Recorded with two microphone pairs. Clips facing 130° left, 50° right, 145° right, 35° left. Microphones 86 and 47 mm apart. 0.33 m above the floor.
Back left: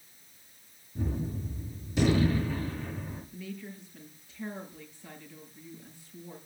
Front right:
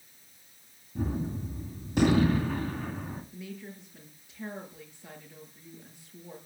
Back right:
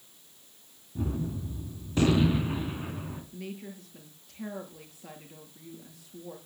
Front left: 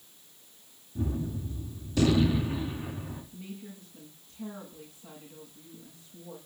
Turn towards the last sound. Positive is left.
turn(degrees=-120)